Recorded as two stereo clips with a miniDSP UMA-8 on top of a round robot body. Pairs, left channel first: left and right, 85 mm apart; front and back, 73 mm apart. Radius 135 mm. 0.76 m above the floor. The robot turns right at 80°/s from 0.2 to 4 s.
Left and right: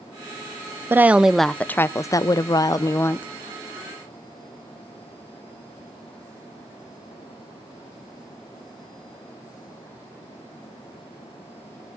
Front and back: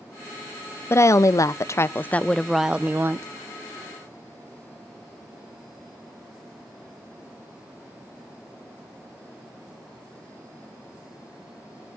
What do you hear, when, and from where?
0.9 s a woman speaking: 35° right, 0.6 m; by 3.3 s 150° left, 0.6 m